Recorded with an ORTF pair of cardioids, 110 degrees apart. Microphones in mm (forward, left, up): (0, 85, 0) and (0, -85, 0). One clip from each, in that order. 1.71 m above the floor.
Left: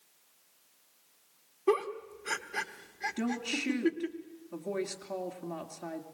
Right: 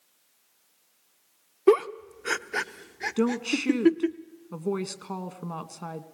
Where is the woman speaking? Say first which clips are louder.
Right 10 dB; 60° right, 2 m.